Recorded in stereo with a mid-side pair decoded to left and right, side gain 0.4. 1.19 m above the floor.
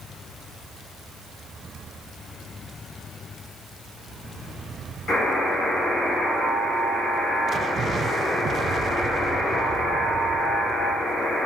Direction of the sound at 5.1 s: 70° left.